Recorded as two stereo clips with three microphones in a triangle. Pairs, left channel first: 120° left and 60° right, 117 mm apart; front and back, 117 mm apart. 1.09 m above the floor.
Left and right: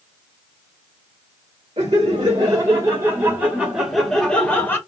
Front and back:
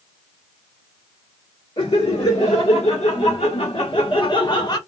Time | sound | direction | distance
1.8 | laughter | 20° right | 1.7 m